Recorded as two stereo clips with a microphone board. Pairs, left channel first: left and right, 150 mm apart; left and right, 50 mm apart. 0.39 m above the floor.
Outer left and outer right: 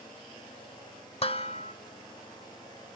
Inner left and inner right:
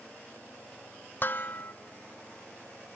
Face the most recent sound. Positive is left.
turn(degrees=40)  # may be behind; listen again after turning